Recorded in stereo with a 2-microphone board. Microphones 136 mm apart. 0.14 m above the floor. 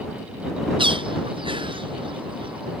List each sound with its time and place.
0.8 s a bird: 40° right (ahead or behind)